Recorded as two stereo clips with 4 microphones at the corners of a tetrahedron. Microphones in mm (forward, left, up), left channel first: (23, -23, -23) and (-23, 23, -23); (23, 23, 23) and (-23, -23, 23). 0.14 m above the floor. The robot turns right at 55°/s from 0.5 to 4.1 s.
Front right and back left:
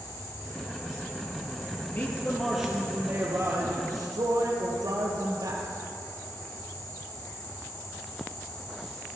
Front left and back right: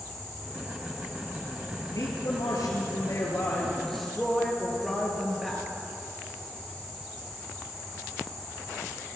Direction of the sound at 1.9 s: 15° left.